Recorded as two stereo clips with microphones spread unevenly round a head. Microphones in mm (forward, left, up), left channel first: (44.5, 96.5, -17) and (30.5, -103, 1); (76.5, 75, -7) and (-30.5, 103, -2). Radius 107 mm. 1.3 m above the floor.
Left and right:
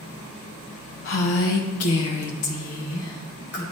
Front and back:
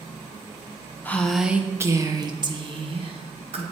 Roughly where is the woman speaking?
Ahead left.